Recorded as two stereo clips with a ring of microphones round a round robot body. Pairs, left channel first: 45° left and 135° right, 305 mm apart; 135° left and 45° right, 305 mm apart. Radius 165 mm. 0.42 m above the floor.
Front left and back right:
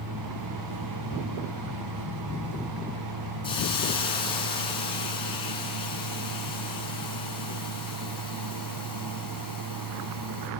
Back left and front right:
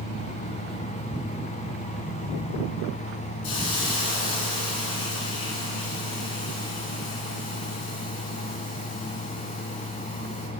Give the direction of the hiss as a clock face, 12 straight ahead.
8 o'clock.